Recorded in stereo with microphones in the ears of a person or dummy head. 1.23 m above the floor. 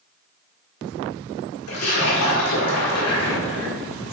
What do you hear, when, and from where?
1.7 s a splash: 80° left, 1.4 m